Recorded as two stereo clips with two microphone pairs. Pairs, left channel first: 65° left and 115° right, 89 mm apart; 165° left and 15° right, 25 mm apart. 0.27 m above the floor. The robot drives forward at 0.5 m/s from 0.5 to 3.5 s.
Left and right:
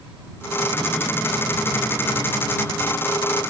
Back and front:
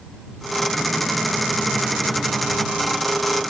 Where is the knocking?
No knocking in this recording.